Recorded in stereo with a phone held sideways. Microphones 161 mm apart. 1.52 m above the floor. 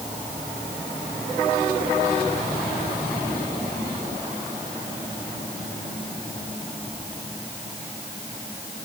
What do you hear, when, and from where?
Only background noise.